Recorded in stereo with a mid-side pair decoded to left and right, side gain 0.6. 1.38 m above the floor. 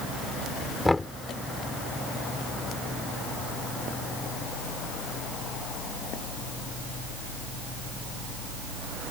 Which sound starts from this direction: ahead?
Knocking, at 0.8 s.